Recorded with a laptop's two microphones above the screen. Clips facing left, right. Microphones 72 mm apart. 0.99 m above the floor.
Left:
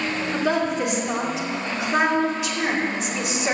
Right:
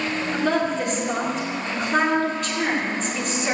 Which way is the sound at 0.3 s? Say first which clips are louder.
Even; 5° left (ahead or behind).